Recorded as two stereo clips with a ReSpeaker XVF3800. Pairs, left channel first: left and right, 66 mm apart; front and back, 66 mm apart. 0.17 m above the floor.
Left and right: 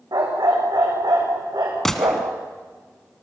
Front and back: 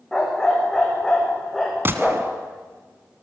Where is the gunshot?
170° left, 1.2 m.